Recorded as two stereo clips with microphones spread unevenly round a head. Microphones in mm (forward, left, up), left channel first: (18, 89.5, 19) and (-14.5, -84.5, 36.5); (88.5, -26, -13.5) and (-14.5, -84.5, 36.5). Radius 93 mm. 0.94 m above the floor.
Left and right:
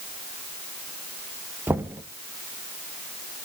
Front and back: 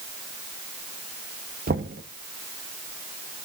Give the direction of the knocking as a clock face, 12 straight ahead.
6 o'clock.